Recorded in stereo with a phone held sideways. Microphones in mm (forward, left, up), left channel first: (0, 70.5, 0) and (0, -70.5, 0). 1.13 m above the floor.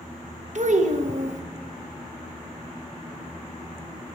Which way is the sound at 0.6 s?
65° right (ahead or behind).